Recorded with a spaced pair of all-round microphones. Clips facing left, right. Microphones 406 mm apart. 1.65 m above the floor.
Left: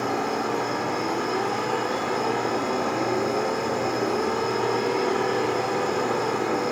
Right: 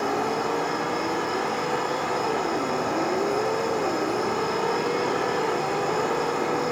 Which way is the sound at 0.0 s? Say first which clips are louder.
Even; 55° left (ahead or behind).